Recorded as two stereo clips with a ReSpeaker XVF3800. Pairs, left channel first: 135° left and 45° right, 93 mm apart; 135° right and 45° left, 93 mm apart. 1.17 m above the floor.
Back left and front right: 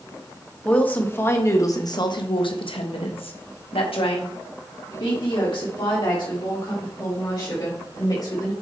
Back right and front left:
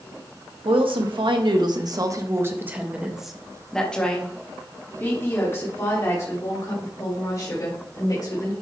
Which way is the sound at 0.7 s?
60° left.